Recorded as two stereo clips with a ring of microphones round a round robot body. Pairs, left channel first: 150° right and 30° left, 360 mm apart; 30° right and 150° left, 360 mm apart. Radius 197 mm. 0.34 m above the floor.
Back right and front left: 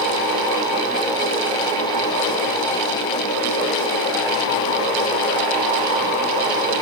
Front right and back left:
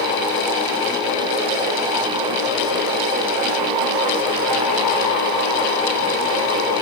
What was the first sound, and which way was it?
Only background noise.